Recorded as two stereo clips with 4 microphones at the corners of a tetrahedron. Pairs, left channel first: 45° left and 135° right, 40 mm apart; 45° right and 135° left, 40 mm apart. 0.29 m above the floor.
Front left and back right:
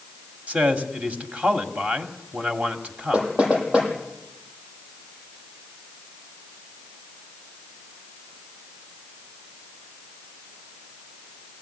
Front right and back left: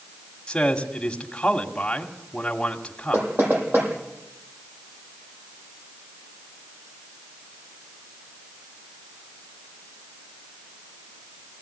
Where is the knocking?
160° left, 8.5 m.